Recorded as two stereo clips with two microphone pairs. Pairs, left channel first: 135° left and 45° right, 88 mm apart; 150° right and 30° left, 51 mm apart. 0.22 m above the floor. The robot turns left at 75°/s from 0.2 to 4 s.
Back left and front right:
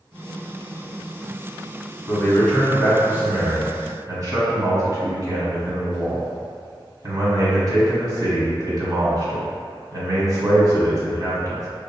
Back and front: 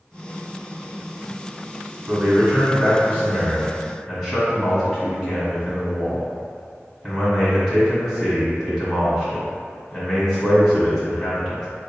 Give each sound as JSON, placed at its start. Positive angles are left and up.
{"t": 2.1, "sound": "a man speaking", "azimuth_deg": 95, "distance_m": 1.6}